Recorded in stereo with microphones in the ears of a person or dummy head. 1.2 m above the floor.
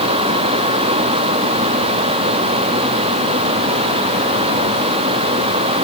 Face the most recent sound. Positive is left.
No sound to turn to.